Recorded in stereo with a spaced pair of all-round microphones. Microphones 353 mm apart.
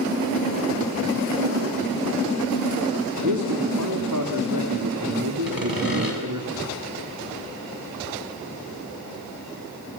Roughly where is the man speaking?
Right.